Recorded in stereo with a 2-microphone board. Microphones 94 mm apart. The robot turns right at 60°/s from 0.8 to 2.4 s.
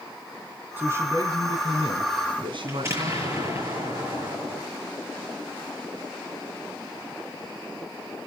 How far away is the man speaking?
About 3.5 m.